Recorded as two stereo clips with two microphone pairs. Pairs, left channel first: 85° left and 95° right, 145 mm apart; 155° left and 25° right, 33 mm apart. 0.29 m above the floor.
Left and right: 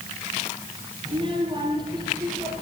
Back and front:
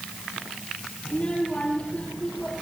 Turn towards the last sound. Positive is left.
turn(degrees=-155)